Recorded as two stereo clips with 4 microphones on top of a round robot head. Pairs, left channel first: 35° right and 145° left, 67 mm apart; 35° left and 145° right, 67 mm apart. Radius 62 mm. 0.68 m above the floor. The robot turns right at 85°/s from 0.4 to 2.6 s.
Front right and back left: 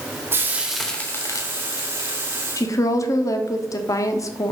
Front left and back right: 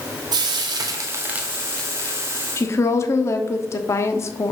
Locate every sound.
0.3 s frying: 155° right, 1.6 m; by 2.2 s 5° right, 1.6 m
2.6 s a woman speaking: 10° right, 1.3 m; by 4.5 s 5° right, 1.3 m